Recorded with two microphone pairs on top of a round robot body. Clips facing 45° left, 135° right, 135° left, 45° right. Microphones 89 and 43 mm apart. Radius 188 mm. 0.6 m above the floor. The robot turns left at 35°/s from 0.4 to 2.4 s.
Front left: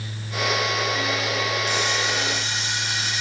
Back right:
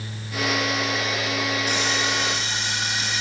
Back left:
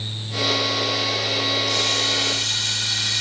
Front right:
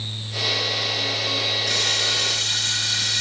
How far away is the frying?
About 2.5 m.